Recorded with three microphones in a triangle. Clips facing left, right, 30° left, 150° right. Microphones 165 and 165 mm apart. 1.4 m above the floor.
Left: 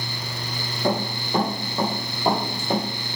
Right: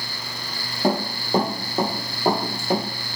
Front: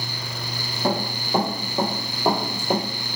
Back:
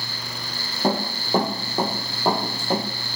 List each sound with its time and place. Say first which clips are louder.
0.8 s running footsteps: right 2 dB, back 1 dB; 110° right, 1.8 m; by 2.8 s 10° right, 1.5 m